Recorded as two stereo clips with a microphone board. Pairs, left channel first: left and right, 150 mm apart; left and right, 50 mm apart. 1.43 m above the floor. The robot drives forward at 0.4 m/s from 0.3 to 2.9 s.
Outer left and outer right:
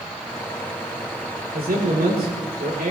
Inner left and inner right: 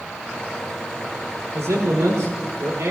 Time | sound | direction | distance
1.5 | a man speaking | 90° right | 5 m